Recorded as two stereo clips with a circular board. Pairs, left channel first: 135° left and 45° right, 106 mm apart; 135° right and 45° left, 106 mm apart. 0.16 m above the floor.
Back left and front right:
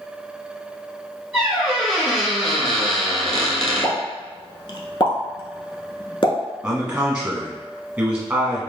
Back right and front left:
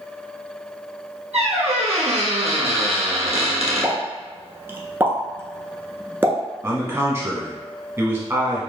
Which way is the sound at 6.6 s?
20° left.